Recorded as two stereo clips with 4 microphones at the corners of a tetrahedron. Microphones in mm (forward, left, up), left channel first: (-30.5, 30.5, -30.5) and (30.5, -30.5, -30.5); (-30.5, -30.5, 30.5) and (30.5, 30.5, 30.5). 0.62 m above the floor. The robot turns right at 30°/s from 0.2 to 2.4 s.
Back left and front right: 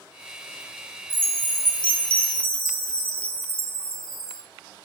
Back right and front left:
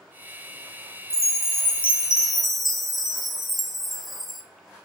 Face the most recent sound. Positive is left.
turn(degrees=135)